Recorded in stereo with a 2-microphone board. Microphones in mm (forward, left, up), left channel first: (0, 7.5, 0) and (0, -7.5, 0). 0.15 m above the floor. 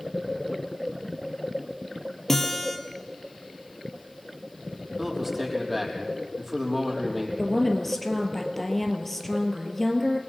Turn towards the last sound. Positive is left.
turn(degrees=15)  # may be behind; listen again after turning